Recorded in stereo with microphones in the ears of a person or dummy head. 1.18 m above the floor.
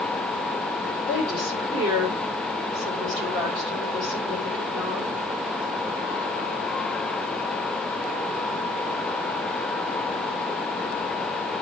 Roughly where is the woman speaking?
Centre.